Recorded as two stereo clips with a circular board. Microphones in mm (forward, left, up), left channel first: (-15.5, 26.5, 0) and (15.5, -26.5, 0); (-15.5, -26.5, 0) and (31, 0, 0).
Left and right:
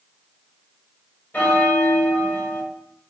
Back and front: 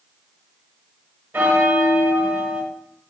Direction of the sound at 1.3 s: 60° left.